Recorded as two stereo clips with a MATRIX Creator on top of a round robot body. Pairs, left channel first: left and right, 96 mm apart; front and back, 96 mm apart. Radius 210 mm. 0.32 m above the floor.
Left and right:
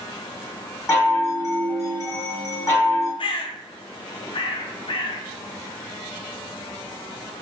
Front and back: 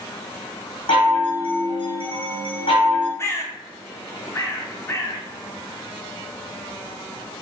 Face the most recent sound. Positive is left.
turn(degrees=60)